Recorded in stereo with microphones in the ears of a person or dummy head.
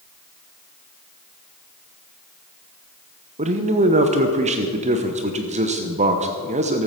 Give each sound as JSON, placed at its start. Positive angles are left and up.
{"t": 3.4, "sound": "a man speaking", "side_deg": -30, "distance_m": 0.9}